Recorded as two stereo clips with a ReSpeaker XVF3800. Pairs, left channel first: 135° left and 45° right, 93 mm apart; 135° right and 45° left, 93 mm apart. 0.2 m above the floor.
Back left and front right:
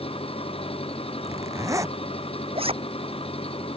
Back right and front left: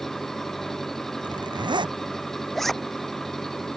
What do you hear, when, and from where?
0.0 s an engine running: 140° left
1.2 s a zipper: 10° left
2.5 s a zipper: 50° right